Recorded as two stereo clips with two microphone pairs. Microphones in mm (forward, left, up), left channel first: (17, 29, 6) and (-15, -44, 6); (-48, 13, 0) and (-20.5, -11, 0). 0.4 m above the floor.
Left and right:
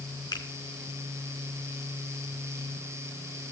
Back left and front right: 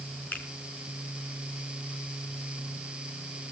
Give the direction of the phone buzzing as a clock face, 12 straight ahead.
No phone buzzing in this recording.